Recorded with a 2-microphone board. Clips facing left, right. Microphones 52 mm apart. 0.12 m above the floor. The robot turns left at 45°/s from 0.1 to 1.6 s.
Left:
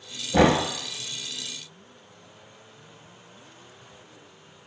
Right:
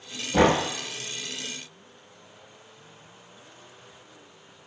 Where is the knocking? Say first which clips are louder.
Left 1 dB; 35° left (ahead or behind), 1.4 m; by 0.6 s 30° left (ahead or behind), 1.4 m.